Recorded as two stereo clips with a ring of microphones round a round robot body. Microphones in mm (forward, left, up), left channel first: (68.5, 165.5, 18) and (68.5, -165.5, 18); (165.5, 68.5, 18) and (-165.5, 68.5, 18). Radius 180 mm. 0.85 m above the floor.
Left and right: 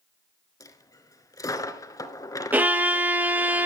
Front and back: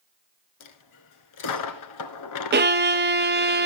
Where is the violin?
170° right, 0.7 m.